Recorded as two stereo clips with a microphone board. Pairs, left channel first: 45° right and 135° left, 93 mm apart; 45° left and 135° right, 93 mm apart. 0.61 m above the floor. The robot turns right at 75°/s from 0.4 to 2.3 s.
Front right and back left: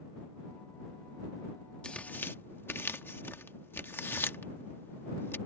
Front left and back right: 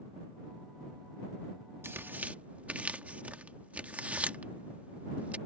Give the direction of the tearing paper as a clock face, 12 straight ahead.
4 o'clock.